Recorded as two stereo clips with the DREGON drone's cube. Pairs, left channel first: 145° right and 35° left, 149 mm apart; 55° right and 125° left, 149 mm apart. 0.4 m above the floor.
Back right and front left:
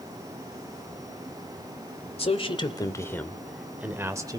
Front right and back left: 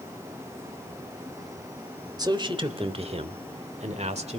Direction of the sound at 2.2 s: Straight behind.